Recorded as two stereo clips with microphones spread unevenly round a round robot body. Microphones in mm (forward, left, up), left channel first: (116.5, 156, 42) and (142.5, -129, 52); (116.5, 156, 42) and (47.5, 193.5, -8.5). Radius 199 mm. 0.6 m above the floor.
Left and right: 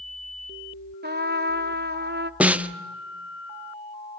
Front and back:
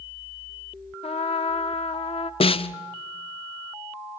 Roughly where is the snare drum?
Ahead.